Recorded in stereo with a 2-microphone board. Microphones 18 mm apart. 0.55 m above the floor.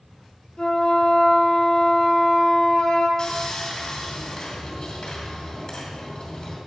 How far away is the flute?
About 1.4 m.